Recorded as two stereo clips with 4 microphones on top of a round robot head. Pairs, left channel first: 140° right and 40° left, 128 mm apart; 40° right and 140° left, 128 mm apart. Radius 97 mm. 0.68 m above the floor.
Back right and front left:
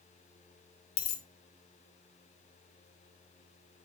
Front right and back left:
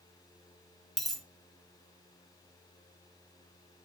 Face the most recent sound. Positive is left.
turn(degrees=-130)